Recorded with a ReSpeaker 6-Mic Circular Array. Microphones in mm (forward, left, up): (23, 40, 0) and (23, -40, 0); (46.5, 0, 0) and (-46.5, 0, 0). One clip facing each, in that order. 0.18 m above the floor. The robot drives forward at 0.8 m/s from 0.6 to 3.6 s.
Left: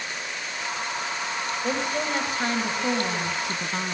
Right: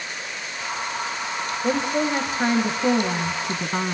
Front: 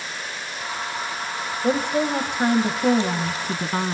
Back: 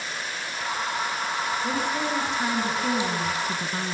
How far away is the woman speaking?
About 3.5 m.